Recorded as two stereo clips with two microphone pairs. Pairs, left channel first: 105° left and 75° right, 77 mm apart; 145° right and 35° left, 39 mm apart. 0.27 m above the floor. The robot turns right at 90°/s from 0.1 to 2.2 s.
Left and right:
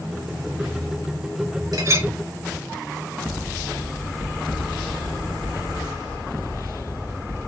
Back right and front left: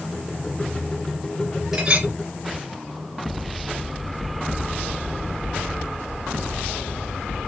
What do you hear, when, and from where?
1.7 s a clink: 45° right, 2.5 m; by 2.1 s 10° right, 2.5 m